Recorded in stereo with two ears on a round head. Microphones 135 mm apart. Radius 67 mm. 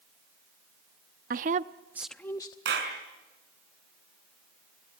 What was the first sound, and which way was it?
A woman speaking, 60° right (ahead or behind).